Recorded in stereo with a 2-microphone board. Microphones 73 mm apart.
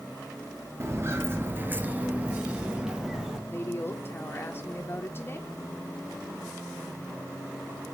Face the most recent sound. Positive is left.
turn(degrees=30)  # may be behind; listen again after turning